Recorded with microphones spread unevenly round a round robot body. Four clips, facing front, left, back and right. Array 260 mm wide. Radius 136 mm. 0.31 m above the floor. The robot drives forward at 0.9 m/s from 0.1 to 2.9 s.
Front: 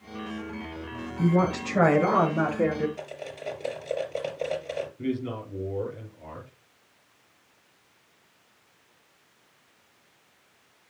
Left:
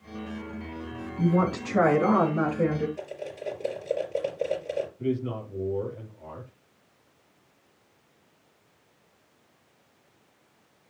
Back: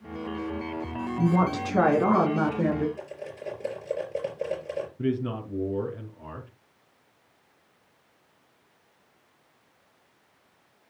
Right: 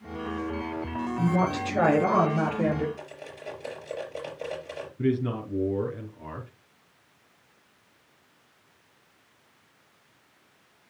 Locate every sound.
1.2 s a woman speaking: 155° left, 3.5 m; by 2.9 s 165° left, 4.5 m
3.0 s cutlery clinking: 130° left, 4.5 m
5.0 s a man speaking: 140° right, 4 m